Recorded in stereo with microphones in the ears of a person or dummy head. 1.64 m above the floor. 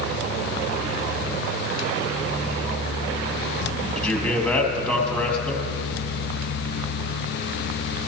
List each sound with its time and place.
4.0 s a man speaking: 10° left (ahead or behind), 2 m